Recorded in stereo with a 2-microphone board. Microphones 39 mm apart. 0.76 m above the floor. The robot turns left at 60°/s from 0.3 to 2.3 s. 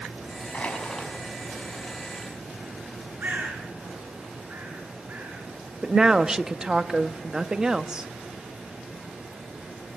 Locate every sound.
0.5 s crushing: 40° left, 5.5 m; by 1.1 s 5° left, 5.5 m
3.2 s a bird: 50° right (ahead or behind), 9 m
5.8 s a woman speaking: 20° right (ahead or behind), 0.8 m